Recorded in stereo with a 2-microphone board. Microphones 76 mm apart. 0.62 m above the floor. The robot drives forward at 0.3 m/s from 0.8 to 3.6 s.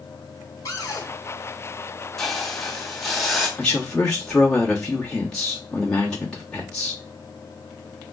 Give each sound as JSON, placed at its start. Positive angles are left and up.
{"t": 0.7, "sound": "a cupboard door", "side_deg": 45, "distance_m": 1.2}
{"t": 2.2, "sound": "a hiss", "side_deg": 5, "distance_m": 0.6}
{"t": 3.6, "sound": "a man speaking", "side_deg": 10, "distance_m": 1.3}